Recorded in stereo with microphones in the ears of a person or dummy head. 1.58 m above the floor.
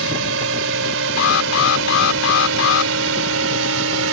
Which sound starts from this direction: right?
A drone, at 0.0 s.